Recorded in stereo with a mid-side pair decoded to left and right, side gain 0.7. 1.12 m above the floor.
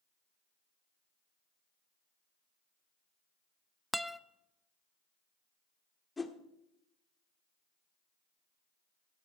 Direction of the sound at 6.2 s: 20° left.